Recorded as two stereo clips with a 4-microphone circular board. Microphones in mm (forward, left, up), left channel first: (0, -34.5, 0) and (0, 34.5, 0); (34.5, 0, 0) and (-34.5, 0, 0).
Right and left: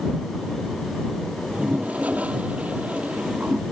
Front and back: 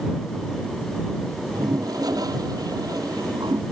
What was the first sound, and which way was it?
A toilet flushing, 160° left.